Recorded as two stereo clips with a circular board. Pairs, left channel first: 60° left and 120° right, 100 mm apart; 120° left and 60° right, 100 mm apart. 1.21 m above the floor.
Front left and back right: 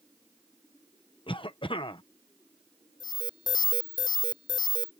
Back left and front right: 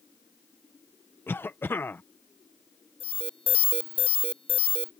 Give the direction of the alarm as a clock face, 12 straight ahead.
8 o'clock.